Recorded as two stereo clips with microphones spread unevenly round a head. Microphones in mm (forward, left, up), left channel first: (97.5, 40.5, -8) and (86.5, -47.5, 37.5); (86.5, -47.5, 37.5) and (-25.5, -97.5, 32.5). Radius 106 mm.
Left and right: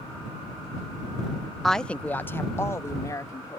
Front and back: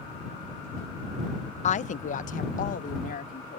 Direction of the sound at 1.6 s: Straight ahead.